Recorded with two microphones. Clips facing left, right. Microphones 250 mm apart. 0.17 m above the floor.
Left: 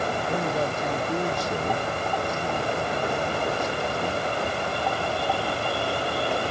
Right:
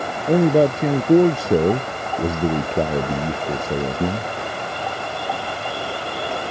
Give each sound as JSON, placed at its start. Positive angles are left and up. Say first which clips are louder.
{"t": 0.3, "sound": "a man speaking", "louder": "right 16 dB", "side_deg": -70}